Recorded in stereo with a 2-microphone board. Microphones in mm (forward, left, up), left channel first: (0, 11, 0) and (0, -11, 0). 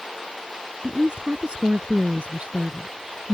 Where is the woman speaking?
50° right (ahead or behind).